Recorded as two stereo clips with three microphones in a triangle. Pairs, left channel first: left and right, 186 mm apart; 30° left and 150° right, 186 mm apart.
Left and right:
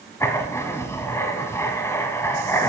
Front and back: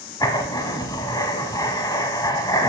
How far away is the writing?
About 0.9 m.